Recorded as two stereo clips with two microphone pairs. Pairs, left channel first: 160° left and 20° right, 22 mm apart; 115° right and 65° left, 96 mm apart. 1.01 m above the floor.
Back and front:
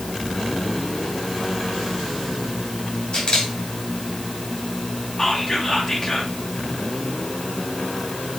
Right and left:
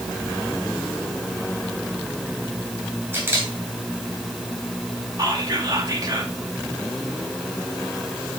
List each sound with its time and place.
3.1 s a camera shutter: 125° left, 4 m
5.2 s whispering: 100° left, 2.5 m